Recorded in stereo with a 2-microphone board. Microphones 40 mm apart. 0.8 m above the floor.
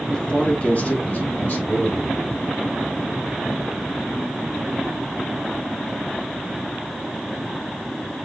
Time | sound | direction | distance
0.1 | a man speaking | 20° left (ahead or behind) | 0.9 m